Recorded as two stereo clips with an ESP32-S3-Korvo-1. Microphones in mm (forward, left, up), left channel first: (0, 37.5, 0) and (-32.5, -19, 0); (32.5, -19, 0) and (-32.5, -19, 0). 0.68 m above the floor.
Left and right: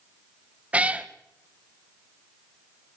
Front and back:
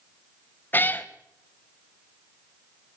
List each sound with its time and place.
0.7 s a cat meowing: 55° right, 0.8 m